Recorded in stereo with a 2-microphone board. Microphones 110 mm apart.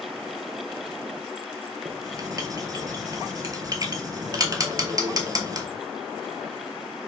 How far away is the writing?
About 0.6 m.